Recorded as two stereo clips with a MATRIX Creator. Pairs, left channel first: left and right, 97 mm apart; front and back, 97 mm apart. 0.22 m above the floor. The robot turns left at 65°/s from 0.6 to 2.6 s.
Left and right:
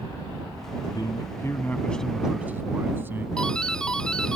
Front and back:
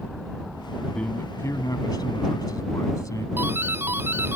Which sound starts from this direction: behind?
A doorbell, at 3.4 s.